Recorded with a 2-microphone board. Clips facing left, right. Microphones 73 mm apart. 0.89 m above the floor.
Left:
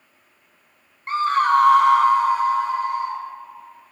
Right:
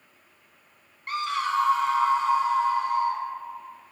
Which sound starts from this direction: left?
A scream, at 1.1 s.